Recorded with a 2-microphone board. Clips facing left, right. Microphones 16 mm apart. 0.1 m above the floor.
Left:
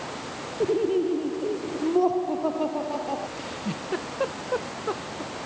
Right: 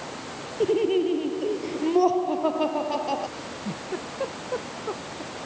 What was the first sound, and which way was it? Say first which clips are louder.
Laughter: right 1 dB; 45° right (ahead or behind).